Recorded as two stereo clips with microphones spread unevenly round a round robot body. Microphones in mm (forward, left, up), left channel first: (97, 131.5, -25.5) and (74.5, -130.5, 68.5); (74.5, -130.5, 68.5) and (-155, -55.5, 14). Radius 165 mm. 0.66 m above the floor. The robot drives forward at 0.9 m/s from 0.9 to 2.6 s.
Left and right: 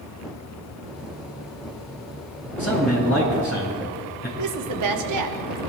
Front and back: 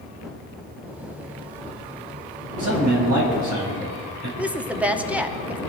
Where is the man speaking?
150° left, 6 m.